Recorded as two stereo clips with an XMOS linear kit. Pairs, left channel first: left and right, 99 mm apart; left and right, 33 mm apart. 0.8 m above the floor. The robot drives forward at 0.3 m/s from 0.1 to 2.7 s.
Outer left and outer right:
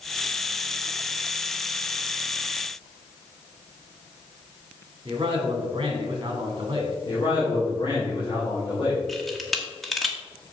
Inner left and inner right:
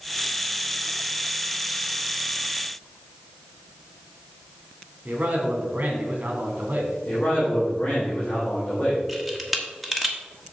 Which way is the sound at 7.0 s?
55° left (ahead or behind).